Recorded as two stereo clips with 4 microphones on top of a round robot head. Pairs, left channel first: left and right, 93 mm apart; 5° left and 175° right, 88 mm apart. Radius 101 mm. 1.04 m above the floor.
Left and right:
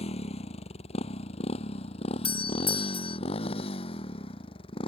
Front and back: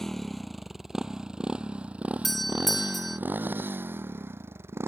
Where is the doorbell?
95° left.